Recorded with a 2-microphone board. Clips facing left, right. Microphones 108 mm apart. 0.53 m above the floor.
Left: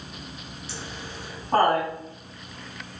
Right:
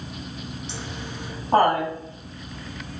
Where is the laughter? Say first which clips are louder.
Right 3 dB; 20° right (ahead or behind), 4 m.